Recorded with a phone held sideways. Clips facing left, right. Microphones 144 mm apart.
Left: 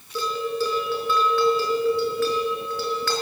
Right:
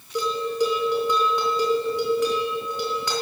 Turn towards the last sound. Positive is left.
turn(degrees=-20)  # may be behind; listen again after turning